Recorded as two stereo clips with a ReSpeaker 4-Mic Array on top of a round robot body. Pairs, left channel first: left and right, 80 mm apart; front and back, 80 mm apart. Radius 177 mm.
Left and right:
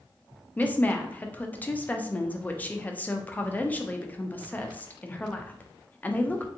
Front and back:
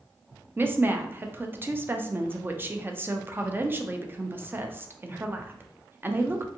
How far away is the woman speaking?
About 0.6 m.